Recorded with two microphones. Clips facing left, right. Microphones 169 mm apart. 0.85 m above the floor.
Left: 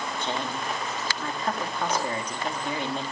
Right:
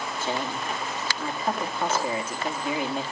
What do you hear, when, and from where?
0.2 s a woman speaking: 5° right (ahead or behind), 1.8 m